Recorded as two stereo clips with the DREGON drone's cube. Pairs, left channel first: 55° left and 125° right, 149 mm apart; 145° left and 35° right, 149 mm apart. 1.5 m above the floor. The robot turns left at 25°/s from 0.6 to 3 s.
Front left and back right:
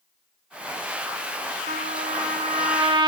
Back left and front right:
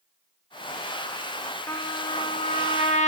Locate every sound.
1.7 s a trumpet: 145° right, 1.6 m; by 3.1 s straight behind, 1.6 m